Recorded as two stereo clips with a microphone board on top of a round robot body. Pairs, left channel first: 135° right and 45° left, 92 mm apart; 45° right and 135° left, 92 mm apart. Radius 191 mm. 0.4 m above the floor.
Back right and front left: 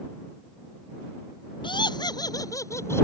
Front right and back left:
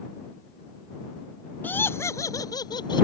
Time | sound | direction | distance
1.6 | laughter | 115° right | ?